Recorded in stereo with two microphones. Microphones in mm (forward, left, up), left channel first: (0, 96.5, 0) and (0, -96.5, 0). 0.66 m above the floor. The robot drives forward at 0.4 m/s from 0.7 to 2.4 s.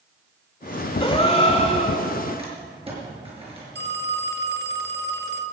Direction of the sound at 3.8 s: 60° right (ahead or behind).